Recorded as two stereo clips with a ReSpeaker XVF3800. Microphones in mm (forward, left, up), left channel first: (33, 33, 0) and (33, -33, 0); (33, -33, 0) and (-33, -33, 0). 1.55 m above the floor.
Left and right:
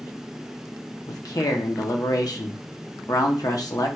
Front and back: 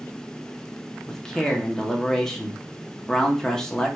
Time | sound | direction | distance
1.1 | a man speaking | 80° left | 0.8 m